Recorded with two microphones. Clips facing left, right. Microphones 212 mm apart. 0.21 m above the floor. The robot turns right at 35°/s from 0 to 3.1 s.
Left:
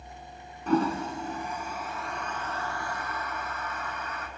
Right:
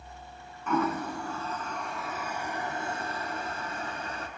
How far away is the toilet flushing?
About 1.8 m.